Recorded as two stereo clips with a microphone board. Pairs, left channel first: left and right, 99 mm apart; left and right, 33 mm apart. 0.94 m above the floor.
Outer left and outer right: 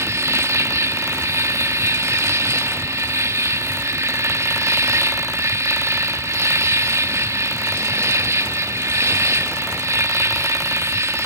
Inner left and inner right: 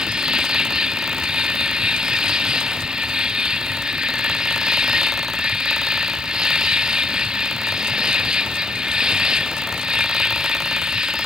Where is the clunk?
No clunk in this recording.